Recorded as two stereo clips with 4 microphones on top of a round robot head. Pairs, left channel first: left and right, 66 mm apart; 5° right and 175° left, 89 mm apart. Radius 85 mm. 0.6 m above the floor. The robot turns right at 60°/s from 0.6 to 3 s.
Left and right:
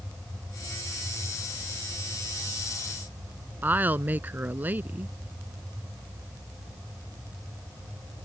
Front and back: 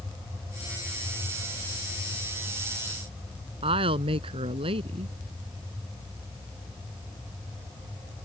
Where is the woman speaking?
150° right.